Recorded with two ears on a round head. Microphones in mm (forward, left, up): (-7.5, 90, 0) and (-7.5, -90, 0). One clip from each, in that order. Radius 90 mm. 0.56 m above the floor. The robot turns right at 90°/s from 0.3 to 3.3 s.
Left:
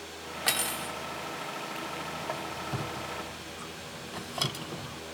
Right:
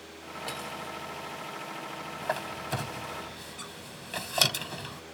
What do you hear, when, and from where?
0.5 s cutlery clinking: 65° left; by 0.9 s 110° left
2.2 s a squeak: 35° right (ahead or behind); by 5.0 s 40° right (ahead or behind)